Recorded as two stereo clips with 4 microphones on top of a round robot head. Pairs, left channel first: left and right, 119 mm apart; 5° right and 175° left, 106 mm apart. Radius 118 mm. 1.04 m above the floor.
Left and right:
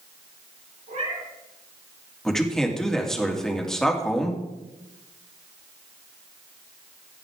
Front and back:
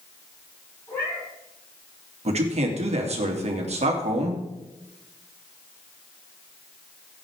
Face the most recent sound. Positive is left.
turn(degrees=175)